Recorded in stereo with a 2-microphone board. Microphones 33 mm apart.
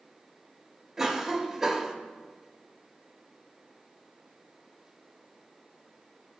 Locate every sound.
1.0 s a cough: 10° right (ahead or behind), 0.9 m